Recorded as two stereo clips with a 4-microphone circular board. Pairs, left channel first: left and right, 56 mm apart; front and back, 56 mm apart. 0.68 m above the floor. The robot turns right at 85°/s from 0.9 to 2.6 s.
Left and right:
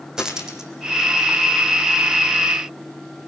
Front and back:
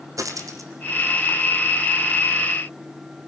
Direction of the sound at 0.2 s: 170° right.